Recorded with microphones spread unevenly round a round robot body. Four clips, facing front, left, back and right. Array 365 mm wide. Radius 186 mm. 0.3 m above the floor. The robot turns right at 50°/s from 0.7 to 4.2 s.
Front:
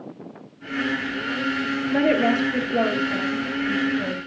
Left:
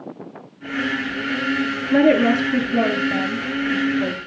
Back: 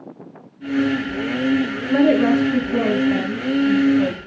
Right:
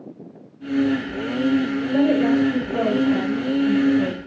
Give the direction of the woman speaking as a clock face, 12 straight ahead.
8 o'clock.